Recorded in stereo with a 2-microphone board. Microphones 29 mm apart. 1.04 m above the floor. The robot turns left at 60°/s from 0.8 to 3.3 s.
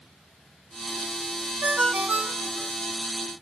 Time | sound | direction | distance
1.6 | a ringtone | 75° right | 1.5 m